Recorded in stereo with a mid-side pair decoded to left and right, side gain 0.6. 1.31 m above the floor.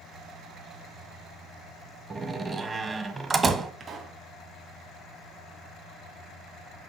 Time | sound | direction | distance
2.1 | a door slam | 30° right | 1.2 m
3.8 | a pop | 45° right | 2 m